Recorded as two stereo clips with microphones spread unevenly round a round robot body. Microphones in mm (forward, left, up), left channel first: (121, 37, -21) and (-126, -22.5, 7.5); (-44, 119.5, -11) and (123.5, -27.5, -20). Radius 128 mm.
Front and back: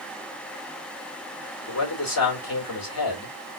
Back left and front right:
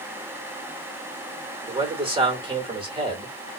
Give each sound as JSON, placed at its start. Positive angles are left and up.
{"t": 1.7, "sound": "a man speaking", "azimuth_deg": 25, "distance_m": 2.0}